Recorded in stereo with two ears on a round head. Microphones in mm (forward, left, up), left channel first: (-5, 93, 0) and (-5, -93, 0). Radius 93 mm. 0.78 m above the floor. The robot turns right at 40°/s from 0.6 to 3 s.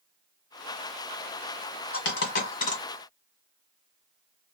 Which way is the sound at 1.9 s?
65° left (ahead or behind).